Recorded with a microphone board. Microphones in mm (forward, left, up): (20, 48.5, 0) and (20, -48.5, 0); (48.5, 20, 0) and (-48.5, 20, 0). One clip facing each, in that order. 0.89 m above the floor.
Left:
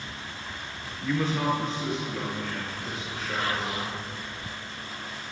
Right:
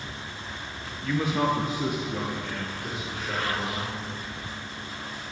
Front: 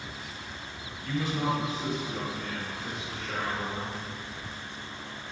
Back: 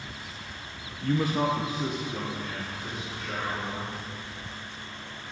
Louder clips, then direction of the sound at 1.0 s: Right 1 dB, back 4 dB; 160° left.